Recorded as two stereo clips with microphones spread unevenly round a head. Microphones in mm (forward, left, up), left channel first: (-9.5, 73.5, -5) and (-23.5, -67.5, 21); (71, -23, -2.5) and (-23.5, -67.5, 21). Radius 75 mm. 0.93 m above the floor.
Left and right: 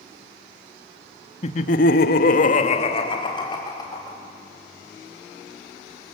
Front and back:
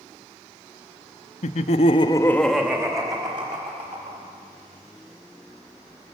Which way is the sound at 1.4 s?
35° left.